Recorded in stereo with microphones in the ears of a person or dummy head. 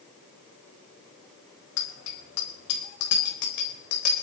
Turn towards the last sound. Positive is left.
turn(degrees=45)  # may be behind; listen again after turning